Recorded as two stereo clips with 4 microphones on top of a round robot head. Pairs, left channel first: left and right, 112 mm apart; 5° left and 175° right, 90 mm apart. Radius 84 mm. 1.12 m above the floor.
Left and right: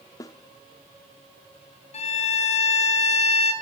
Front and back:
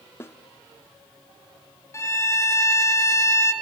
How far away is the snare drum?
About 0.7 m.